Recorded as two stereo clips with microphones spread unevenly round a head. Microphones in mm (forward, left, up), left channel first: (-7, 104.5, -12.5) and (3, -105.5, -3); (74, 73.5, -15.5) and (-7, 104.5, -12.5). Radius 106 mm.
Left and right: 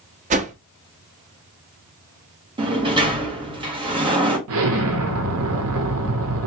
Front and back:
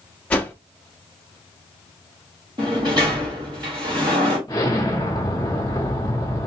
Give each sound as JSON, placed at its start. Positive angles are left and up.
{"t": 0.3, "sound": "a whoosh", "azimuth_deg": -90, "distance_m": 0.5}
{"t": 2.6, "sound": "a sliding door", "azimuth_deg": -155, "distance_m": 1.1}
{"t": 4.5, "sound": "an explosion", "azimuth_deg": -80, "distance_m": 0.8}